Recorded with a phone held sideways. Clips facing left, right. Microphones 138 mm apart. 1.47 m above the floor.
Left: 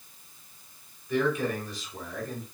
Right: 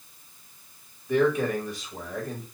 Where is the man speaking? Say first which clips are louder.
Right 4 dB; 55° right (ahead or behind), 3 m.